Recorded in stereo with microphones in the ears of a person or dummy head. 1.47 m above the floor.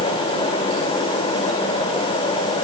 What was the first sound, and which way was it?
Only background noise.